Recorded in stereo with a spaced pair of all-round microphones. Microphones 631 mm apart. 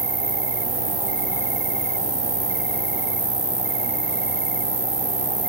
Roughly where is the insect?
Right.